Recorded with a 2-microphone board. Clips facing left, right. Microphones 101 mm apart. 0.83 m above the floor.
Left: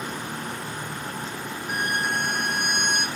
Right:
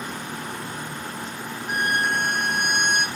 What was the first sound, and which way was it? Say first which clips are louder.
A violin: right 3 dB; 55° right (ahead or behind).